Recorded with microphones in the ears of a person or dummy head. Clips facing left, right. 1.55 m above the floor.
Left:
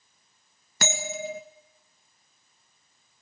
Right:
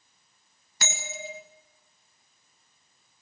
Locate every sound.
0.8 s a bell: 50° left (ahead or behind), 2 m